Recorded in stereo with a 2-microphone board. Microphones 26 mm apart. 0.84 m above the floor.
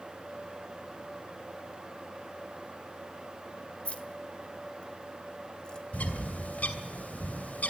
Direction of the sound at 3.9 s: 55° left (ahead or behind).